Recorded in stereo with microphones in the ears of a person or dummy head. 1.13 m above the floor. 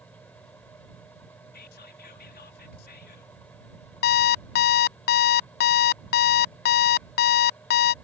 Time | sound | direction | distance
0.0 | a fan | 5° left (ahead or behind) | ?
1.5 | whispering | 55° left (ahead or behind) | ?
4.0 | an alarm clock | 60° left (ahead or behind) | ?